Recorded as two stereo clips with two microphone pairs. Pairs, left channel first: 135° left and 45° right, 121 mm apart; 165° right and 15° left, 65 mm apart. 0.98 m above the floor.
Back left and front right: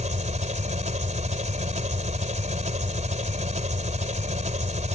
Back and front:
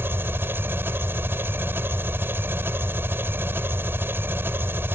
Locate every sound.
0.0 s an engine running: 40° right